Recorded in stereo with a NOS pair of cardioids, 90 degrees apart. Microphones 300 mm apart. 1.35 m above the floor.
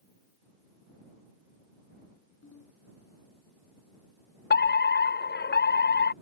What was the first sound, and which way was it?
A ringtone, 45° left.